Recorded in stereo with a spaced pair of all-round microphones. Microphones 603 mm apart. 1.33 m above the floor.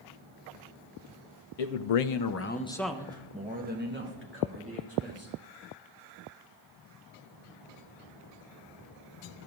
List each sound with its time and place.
1.6 s a man speaking: 75° left (ahead or behind), 0.7 m; by 5.3 s 25° right (ahead or behind), 3 m